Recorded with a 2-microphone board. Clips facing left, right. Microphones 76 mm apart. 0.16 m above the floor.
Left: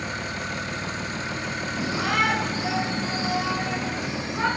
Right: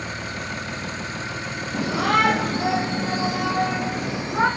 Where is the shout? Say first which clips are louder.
Right 5 dB; 65° right (ahead or behind), 6 m; by 4.5 s 50° right (ahead or behind), 8.5 m.